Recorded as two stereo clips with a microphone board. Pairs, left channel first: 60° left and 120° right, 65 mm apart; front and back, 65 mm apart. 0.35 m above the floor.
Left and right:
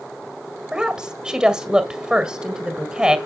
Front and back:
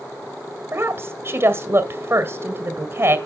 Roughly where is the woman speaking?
Behind.